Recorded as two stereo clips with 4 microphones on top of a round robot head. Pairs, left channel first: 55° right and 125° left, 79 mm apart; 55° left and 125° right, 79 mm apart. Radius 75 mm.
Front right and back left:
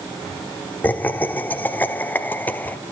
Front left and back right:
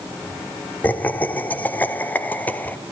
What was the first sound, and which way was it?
Laughter, straight ahead.